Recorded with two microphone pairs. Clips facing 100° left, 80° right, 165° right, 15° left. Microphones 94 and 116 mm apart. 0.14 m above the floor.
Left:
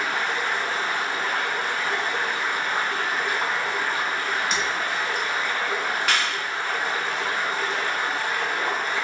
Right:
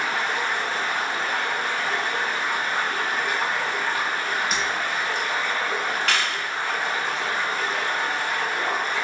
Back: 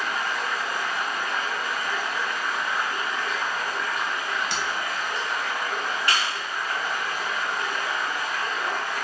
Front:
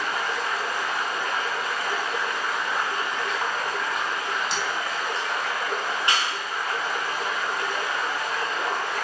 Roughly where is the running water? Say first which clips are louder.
Even, front 1 dB; ahead.